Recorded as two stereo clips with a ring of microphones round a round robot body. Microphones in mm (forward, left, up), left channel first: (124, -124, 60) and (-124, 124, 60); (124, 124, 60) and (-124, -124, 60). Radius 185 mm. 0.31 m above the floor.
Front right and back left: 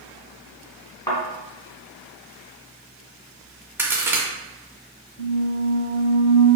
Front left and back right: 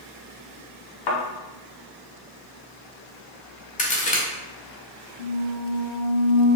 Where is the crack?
60° left, 1.1 m.